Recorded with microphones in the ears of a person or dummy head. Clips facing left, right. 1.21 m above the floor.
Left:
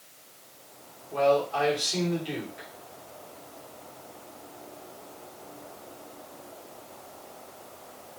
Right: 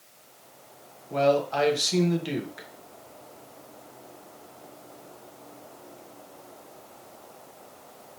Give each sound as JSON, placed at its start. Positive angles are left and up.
{"t": 1.1, "sound": "a man speaking", "side_deg": -60, "distance_m": 0.9}